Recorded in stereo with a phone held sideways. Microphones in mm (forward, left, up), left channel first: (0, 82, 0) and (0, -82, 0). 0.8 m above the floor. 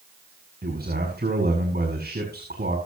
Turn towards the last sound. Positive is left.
turn(degrees=-80)